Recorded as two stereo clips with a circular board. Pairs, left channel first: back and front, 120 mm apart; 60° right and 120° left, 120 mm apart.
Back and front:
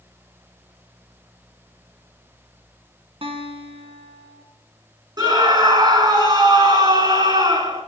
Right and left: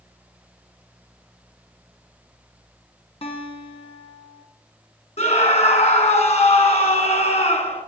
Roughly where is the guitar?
Ahead right.